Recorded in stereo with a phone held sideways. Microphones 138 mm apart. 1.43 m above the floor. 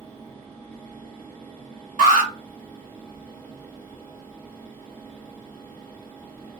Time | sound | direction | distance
0.0 | a fan | 15° left (ahead or behind) | 1.2 m
2.0 | an alarm | 65° right (ahead or behind) | 1.3 m